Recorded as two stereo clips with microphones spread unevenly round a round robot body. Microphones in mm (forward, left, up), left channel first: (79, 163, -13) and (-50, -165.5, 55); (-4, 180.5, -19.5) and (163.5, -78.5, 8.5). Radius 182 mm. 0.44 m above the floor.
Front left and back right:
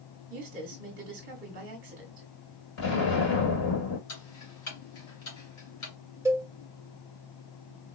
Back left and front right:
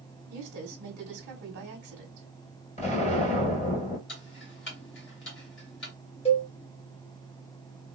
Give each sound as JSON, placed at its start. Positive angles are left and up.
{"t": 0.3, "sound": "a woman speaking", "azimuth_deg": -75, "distance_m": 1.3}
{"t": 2.8, "sound": "an explosion", "azimuth_deg": 60, "distance_m": 3.0}
{"t": 4.1, "sound": "ticking", "azimuth_deg": 90, "distance_m": 2.0}
{"t": 6.2, "sound": "a cowbell", "azimuth_deg": 155, "distance_m": 0.8}